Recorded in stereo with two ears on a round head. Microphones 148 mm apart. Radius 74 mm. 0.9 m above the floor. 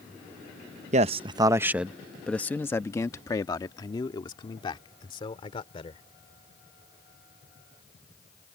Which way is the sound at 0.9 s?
45° right (ahead or behind).